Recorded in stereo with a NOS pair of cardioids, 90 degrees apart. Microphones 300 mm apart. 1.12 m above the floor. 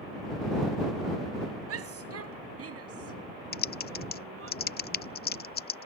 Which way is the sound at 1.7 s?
55° right.